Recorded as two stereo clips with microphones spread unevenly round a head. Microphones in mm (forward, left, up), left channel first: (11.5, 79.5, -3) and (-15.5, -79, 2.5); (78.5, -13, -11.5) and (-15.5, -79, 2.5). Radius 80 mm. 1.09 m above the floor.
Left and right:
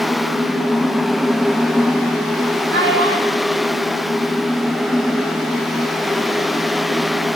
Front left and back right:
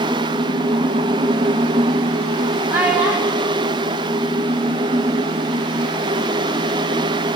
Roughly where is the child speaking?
Right.